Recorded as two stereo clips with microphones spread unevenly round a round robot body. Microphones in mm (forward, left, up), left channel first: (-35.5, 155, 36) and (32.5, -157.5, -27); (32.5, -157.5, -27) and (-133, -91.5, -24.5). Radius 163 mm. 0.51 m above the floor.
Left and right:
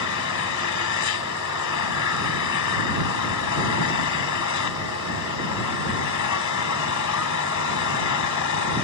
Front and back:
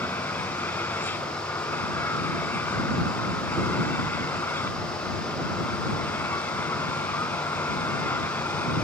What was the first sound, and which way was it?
An engine running, 60° left.